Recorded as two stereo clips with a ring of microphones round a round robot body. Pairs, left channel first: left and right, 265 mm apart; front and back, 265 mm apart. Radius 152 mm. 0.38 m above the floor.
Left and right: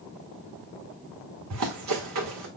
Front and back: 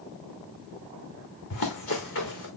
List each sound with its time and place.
1.5 s running footsteps: 55° right, 2.0 m